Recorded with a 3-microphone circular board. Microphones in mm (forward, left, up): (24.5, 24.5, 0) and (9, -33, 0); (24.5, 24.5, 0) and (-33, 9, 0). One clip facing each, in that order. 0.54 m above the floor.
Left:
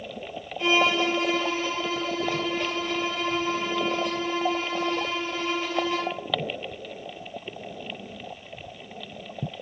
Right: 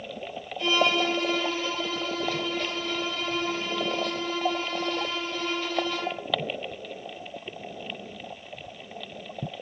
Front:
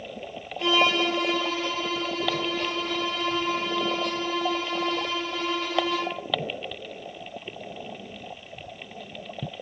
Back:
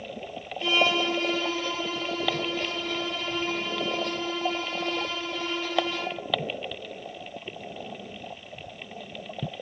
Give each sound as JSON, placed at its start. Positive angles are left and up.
{"t": 0.6, "sound": "a violin", "azimuth_deg": 5, "distance_m": 1.0}